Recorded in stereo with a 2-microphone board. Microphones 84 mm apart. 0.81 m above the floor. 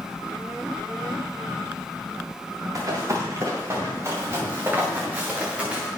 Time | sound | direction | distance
2.8 | running footsteps | 40° right (ahead or behind) | 6.5 m